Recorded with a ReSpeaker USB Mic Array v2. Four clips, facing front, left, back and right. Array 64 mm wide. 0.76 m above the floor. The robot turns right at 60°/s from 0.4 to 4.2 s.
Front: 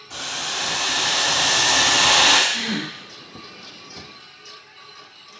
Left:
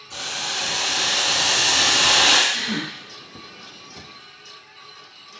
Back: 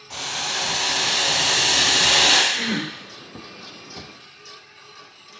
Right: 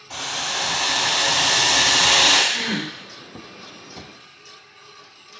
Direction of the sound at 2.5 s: 125° right.